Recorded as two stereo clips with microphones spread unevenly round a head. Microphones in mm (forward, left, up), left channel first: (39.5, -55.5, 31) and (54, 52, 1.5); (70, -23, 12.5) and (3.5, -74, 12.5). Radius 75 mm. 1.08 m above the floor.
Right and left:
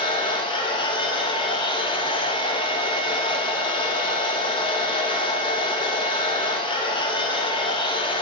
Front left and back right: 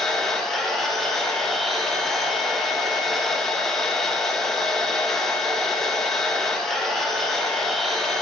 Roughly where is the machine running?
Ahead right.